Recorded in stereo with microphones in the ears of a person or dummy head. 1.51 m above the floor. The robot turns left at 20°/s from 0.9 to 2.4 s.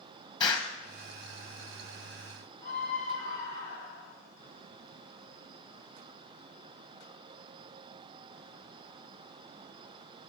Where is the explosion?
25° left (ahead or behind), 1.3 m.